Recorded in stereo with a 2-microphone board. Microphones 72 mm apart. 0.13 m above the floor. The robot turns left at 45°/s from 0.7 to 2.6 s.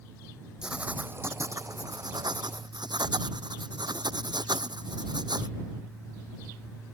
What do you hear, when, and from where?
0.6 s writing: 10° right; by 5.5 s 100° right